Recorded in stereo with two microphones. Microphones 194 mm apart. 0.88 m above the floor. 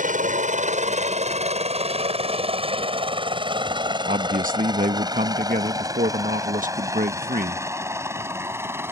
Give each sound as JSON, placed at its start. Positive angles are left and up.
{"t": 0.0, "sound": "a helicopter", "side_deg": -40}
{"t": 4.1, "sound": "a man speaking", "side_deg": -45}